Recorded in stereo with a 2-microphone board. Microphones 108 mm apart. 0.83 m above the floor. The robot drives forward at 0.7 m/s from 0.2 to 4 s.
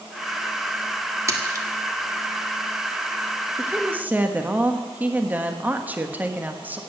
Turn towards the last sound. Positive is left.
turn(degrees=-15)  # may be behind; listen again after turning